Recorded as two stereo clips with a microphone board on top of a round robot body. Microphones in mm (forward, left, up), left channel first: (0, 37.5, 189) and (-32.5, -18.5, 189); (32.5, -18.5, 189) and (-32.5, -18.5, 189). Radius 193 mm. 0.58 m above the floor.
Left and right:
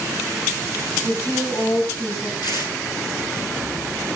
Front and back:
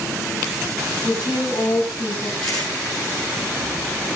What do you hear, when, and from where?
1.0 s a woman speaking: 15° left, 4.5 m
2.4 s tearing paper: 80° left, 8 m